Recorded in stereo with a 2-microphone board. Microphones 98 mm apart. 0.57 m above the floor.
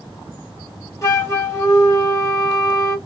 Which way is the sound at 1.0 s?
30° left (ahead or behind).